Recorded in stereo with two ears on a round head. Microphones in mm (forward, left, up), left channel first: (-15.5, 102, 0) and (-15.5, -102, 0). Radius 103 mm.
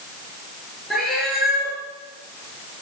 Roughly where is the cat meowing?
Centre.